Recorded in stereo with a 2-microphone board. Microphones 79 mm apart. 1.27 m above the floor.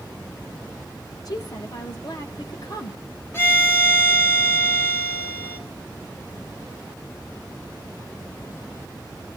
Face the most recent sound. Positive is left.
turn(degrees=30)  # may be behind; listen again after turning